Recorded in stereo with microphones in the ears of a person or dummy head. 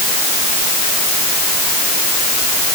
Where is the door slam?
No door slam in this recording.